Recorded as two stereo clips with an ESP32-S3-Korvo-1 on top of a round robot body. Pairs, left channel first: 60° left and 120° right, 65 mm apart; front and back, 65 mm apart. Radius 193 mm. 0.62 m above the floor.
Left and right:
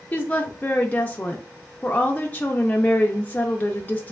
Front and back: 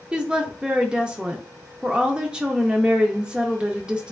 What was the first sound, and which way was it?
A woman speaking, 115° left.